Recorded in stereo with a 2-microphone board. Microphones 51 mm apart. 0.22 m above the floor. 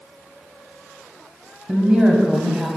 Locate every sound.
1.7 s a woman speaking: 20° right (ahead or behind), 1.0 m